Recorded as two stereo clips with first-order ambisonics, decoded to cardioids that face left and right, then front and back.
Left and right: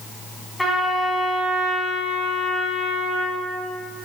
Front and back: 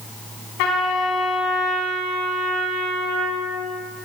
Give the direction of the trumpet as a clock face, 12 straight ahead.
12 o'clock.